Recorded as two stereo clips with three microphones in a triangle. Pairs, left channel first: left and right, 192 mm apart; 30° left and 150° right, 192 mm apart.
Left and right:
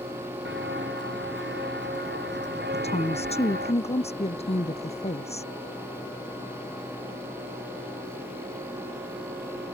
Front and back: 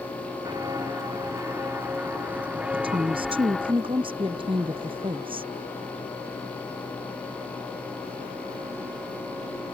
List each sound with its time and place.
0.5 s footsteps: 80° right; by 3.7 s 60° right
2.7 s a woman speaking: 145° left